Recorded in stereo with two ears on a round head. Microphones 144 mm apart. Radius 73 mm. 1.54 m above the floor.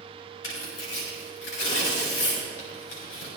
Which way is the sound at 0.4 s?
80° left.